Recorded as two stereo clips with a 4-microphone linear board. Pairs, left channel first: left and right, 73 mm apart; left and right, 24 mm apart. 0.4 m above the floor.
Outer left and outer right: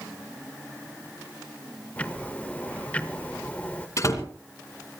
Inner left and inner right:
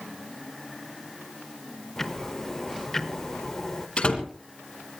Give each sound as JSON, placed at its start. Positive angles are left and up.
{"t": 2.0, "sound": "ticking", "side_deg": 20, "distance_m": 1.2}
{"t": 4.0, "sound": "a door slam", "side_deg": 45, "distance_m": 3.0}